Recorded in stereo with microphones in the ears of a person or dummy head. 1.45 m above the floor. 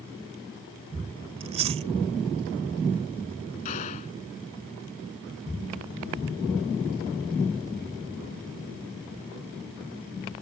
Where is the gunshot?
35° left (ahead or behind).